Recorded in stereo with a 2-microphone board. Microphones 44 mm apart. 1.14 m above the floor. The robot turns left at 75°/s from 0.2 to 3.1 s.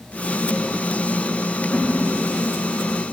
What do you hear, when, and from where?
1.7 s a whoosh: 10° right (ahead or behind), 4.5 m; by 1.9 s 25° right (ahead or behind), 4.5 m